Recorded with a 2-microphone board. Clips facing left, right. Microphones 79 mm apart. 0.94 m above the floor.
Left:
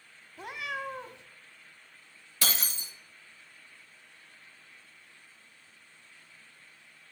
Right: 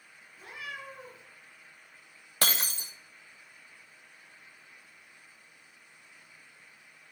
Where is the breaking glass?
55° right (ahead or behind), 0.9 m.